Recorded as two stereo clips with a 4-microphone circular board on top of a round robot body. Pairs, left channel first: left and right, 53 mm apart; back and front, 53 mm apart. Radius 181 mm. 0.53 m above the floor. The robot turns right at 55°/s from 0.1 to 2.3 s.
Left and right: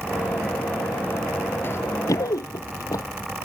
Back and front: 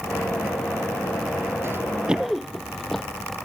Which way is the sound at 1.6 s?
45° left.